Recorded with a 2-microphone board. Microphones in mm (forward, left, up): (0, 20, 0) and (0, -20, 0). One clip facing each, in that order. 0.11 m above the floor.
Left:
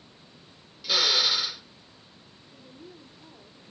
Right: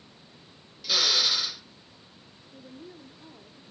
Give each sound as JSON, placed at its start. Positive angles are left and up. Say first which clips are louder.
{"t": 0.8, "sound": "a drill", "louder": "left 1 dB", "side_deg": 10, "distance_m": 0.5}
{"t": 2.5, "sound": "a woman speaking", "louder": "right 3 dB", "side_deg": -35, "distance_m": 1.3}